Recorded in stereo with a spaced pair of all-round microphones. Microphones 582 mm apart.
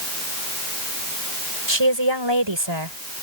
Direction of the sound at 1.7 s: 50° right (ahead or behind).